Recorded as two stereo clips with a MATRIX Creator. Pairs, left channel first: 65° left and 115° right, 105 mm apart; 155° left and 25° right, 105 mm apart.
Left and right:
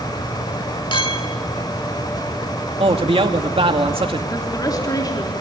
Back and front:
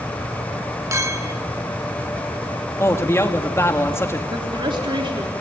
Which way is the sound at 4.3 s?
15° left.